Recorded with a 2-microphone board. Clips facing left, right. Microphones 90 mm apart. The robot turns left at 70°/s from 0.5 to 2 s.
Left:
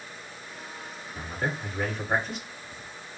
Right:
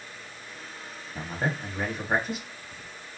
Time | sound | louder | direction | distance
1.1 | a man speaking | right 1 dB | 110° right | 1.1 m